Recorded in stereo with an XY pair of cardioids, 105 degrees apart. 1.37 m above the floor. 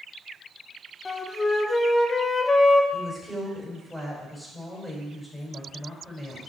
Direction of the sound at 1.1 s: 20° left.